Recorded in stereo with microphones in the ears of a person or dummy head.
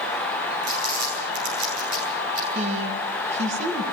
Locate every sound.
0.6 s crumpling: 75° right (ahead or behind), 10 m
2.5 s a woman speaking: 40° right (ahead or behind), 2 m